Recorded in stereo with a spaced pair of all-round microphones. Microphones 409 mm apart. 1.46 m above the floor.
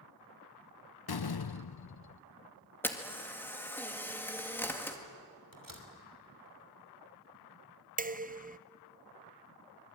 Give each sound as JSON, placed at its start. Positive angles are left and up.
{"t": 1.1, "sound": "a door slam", "side_deg": 65, "distance_m": 0.6}
{"t": 2.8, "sound": "a camera shutter", "side_deg": 5, "distance_m": 2.0}
{"t": 5.5, "sound": "a door slam", "side_deg": -55, "distance_m": 3.0}
{"t": 8.0, "sound": "dishes clattering", "side_deg": -20, "distance_m": 0.5}